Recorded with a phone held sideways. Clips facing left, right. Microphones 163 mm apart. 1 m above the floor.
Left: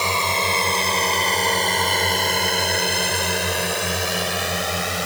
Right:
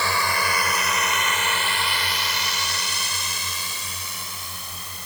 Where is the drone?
20° left (ahead or behind); by 5.1 s 75° left (ahead or behind).